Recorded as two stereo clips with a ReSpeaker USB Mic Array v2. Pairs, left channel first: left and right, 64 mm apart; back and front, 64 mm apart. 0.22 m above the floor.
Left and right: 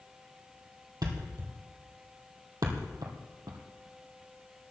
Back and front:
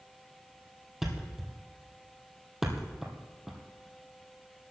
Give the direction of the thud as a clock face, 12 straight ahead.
3 o'clock.